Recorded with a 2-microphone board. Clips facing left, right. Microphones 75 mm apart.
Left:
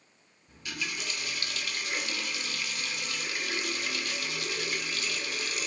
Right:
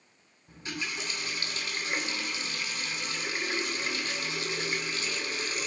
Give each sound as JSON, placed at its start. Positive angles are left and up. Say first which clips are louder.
{"t": 0.5, "sound": "a running tap", "louder": "right 1 dB", "side_deg": -30, "distance_m": 1.3}